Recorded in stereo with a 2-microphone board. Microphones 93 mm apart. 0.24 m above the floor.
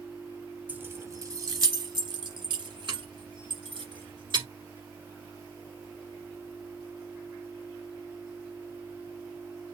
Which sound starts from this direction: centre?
Keys jangling, at 0.7 s.